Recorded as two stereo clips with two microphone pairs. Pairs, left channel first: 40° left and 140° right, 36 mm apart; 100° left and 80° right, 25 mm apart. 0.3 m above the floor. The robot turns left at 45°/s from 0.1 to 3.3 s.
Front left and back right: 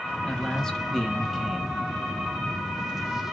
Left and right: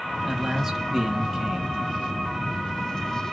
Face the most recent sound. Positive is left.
turn(degrees=-140)